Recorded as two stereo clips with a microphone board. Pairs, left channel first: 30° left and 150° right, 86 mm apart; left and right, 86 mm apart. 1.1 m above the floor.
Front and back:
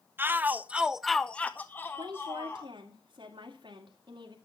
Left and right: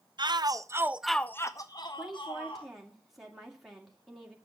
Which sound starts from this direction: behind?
A woman speaking, at 2.0 s.